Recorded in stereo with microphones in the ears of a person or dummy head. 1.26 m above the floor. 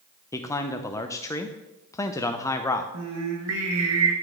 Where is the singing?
80° right, 1.2 m.